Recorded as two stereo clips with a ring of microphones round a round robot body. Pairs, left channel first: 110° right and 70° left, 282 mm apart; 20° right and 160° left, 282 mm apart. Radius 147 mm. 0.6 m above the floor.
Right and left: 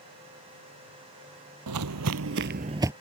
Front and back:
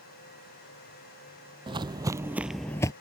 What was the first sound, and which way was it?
Footsteps, 85° left.